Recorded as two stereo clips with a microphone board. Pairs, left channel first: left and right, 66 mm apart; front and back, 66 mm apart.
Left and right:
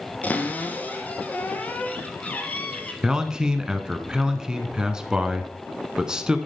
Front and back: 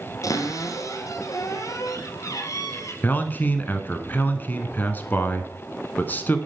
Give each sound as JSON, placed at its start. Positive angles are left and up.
{"t": 0.2, "sound": "a cupboard door", "azimuth_deg": 25, "distance_m": 1.3}
{"t": 3.0, "sound": "a man speaking", "azimuth_deg": -20, "distance_m": 1.1}